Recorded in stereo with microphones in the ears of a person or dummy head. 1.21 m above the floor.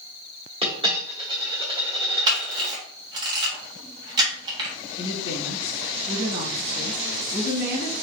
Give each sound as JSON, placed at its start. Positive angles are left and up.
{"t": 0.6, "sound": "a dropped coin", "side_deg": -30, "distance_m": 1.3}
{"t": 2.3, "sound": "a camera shutter", "side_deg": -25, "distance_m": 1.2}
{"t": 5.0, "sound": "a woman speaking", "side_deg": 50, "distance_m": 1.7}